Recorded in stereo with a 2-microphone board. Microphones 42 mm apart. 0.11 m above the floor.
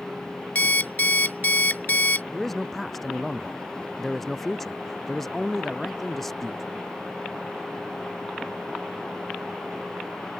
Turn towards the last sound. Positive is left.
turn(degrees=5)  # may be behind; listen again after turning